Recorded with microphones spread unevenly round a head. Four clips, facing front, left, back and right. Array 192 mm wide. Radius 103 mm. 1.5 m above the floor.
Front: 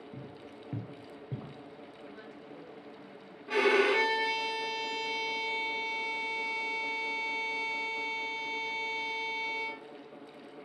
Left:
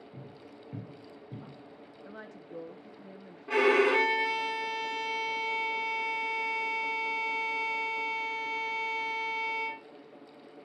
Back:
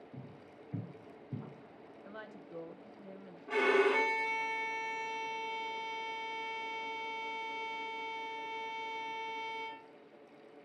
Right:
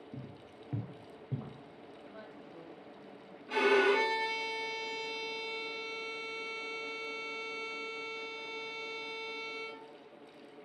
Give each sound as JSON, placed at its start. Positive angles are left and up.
{"t": 0.1, "sound": "footsteps", "azimuth_deg": -65, "distance_m": 1.5}
{"t": 2.0, "sound": "a woman speaking", "azimuth_deg": 120, "distance_m": 1.0}
{"t": 3.5, "sound": "a violin", "azimuth_deg": 65, "distance_m": 3.0}